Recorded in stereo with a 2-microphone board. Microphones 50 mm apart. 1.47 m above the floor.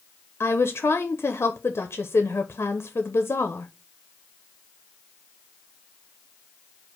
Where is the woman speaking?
60° left (ahead or behind), 0.6 m.